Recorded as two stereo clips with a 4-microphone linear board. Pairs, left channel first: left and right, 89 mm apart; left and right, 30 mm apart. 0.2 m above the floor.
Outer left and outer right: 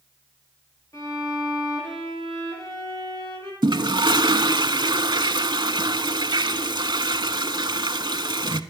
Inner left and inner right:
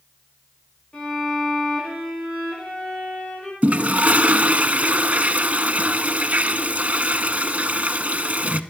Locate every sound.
0.9 s a violin: 35° left (ahead or behind), 7.5 m
3.6 s a toilet flushing: 60° right (ahead or behind), 0.6 m